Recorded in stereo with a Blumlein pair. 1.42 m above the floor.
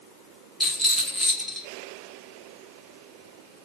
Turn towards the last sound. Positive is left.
turn(degrees=0)